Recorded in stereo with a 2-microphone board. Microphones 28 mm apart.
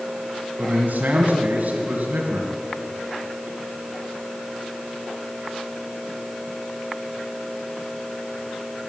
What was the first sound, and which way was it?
A man speaking, 60° right (ahead or behind).